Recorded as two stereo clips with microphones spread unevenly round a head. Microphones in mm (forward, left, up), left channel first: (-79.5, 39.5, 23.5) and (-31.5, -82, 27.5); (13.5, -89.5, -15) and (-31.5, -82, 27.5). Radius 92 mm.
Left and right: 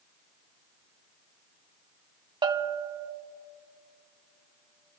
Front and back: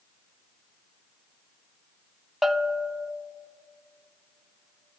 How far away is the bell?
About 0.7 m.